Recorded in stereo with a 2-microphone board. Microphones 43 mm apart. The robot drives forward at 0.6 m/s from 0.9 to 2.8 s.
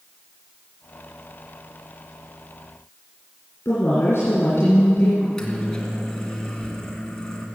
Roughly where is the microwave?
Centre.